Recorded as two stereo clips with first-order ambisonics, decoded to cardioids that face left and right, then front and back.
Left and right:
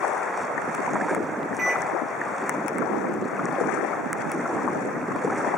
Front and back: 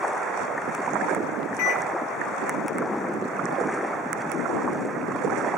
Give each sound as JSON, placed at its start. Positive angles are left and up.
{"t": 1.6, "sound": "a microwave", "azimuth_deg": -15, "distance_m": 3.5}